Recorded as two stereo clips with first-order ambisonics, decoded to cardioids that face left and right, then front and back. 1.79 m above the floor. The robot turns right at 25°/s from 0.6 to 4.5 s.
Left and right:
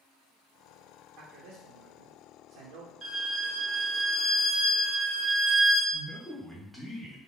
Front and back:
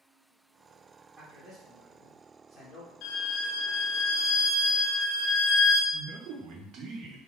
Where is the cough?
No cough in this recording.